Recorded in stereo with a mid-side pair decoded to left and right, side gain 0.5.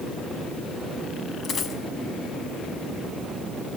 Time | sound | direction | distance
1.4 | a dropped coin | 50° left | 5 m